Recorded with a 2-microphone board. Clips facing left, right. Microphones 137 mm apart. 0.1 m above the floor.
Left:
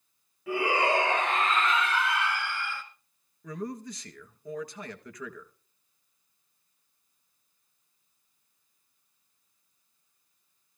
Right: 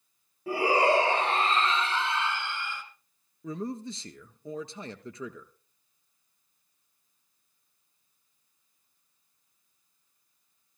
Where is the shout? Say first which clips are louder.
Right 3 dB; 35° right (ahead or behind), 2.5 m; by 2.8 s 20° right (ahead or behind), 1.7 m.